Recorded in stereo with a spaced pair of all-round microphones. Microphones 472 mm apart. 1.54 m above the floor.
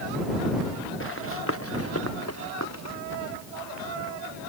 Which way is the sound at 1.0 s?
25° left (ahead or behind).